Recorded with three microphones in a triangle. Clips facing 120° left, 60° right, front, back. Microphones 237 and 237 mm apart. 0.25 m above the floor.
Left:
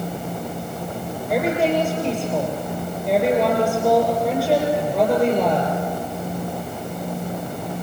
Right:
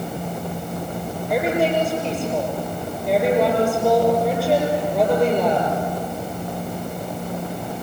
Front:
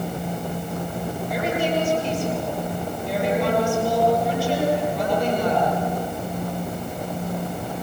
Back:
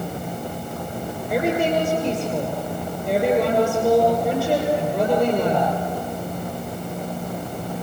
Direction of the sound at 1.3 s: 150° right.